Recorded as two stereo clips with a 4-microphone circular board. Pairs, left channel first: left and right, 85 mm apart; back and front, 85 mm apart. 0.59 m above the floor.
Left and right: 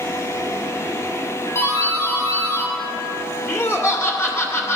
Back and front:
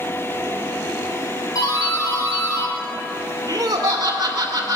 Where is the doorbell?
145° left, 3 m.